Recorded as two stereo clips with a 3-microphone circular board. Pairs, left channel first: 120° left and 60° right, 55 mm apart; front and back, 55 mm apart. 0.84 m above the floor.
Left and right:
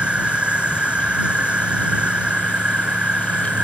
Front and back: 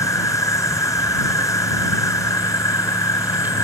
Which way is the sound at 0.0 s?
10° left.